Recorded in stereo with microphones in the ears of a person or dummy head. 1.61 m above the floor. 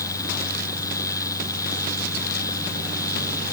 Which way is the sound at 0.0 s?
20° left (ahead or behind).